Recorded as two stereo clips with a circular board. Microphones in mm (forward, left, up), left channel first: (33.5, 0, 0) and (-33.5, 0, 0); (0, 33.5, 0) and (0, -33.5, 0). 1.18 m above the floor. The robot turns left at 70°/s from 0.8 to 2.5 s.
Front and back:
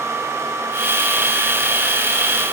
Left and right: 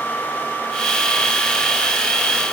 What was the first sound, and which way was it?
Only background noise.